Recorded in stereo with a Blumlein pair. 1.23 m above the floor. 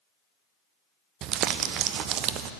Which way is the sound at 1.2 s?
35° right.